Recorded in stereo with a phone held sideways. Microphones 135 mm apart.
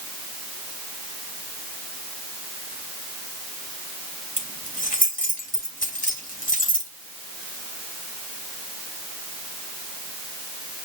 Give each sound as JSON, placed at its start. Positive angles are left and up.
{"t": 4.4, "sound": "keys jangling", "side_deg": 75, "distance_m": 2.5}